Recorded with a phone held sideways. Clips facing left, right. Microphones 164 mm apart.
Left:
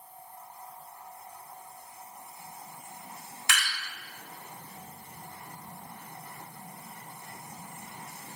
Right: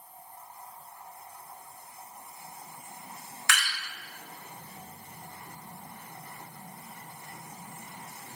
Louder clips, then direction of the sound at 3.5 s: Right 1 dB; 20° left (ahead or behind).